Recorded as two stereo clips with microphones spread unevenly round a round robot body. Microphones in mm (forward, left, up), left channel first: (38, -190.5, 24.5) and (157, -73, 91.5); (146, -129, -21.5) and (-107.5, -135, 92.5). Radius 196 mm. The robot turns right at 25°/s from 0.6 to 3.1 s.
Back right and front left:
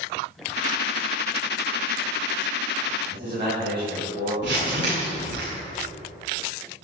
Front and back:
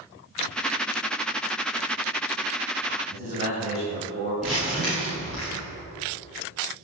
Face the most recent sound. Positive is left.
turn(degrees=85)